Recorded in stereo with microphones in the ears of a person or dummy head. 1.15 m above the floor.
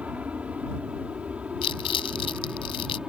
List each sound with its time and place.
0.0 s an aircraft: 5° right (ahead or behind)
1.6 s crumpling: 30° left (ahead or behind)